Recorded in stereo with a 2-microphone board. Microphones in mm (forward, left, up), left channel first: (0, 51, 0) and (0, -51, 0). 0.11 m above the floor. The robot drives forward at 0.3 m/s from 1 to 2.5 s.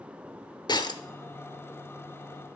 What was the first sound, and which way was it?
Breaking glass, 45° left (ahead or behind).